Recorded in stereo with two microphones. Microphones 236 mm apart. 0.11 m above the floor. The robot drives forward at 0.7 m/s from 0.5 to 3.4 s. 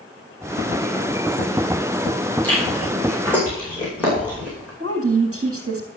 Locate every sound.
2.4 s chewing: 5° left (ahead or behind), 5 m
4.8 s a woman speaking: 70° right (ahead or behind), 3 m